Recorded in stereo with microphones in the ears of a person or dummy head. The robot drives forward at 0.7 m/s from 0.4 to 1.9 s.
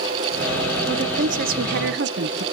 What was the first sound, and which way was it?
A woman speaking, 35° right (ahead or behind).